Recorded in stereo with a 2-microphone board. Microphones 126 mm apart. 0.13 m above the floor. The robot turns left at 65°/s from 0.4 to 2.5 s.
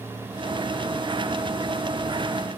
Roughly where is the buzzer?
No buzzer in this recording.